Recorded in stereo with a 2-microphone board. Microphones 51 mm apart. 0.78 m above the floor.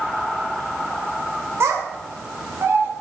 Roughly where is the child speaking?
Right.